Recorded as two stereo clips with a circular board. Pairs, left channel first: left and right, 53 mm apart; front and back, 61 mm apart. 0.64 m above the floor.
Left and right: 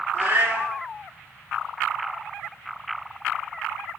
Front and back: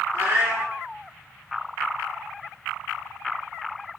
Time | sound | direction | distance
0.1 | a cat meowing | 130° right | 1.3 m